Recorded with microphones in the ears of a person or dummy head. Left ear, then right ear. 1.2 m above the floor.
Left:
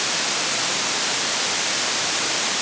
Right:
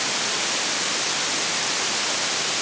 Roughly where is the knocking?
I don't hear knocking.